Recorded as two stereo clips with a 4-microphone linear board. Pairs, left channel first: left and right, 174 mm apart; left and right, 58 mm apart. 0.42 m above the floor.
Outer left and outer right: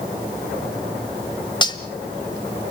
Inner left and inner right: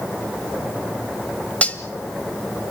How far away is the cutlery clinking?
About 1.1 m.